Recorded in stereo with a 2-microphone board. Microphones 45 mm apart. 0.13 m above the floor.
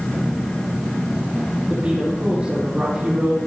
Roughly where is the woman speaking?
Right.